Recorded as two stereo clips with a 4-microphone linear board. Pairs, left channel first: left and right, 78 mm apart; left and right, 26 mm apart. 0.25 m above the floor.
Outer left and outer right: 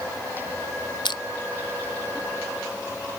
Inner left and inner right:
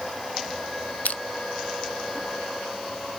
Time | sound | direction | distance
1.1 | crushing | 80° left | 0.6 m